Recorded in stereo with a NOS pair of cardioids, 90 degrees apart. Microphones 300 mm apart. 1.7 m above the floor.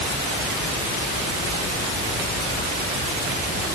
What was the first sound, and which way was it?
Only background noise.